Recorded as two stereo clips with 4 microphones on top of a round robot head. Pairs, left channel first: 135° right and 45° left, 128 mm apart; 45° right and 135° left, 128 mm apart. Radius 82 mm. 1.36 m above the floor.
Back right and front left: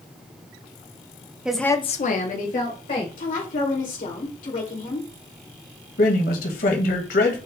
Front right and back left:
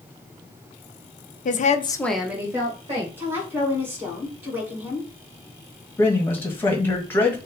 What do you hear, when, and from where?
1.4 s a woman speaking: 35° right, 0.8 m; by 3.1 s 165° right, 2 m
3.2 s a woman speaking: 150° right, 2 m
6.0 s a man speaking: 120° right, 1.4 m